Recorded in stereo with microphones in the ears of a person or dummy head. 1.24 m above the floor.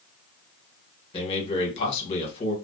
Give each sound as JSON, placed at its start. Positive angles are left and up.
{"t": 1.1, "sound": "a man speaking", "side_deg": 40, "distance_m": 1.3}